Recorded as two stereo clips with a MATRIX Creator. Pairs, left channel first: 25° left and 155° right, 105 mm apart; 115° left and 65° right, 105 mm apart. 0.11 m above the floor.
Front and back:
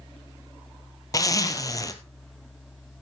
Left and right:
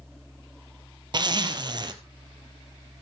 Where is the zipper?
30° right, 1.1 m.